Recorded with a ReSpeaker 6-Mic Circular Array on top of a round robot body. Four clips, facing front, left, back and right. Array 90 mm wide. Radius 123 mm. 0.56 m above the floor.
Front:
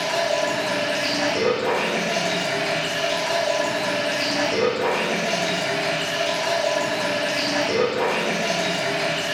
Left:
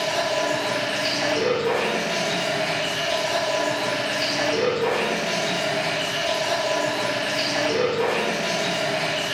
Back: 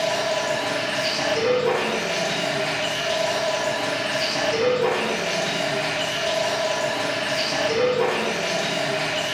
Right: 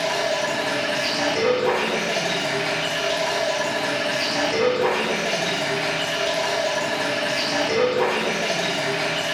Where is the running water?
35° right, 3.5 m.